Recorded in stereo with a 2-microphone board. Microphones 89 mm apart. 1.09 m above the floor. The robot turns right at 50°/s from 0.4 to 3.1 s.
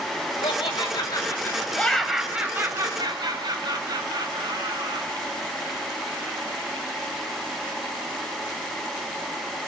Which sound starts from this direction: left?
Laughter, at 0.4 s.